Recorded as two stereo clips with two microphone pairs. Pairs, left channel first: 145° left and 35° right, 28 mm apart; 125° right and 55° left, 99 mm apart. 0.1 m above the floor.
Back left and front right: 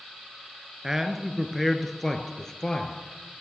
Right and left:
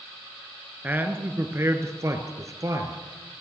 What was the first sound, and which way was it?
A man speaking, 15° left.